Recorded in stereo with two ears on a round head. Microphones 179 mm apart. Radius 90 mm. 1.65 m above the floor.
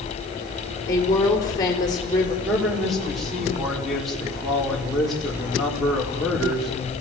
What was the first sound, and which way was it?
A woman speaking, 20° left (ahead or behind).